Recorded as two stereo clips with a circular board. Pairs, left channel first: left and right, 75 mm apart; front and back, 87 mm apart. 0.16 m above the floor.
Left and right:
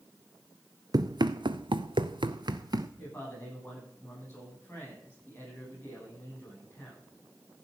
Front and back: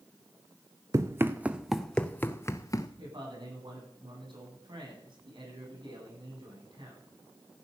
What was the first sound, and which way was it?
Running footsteps, 125° right.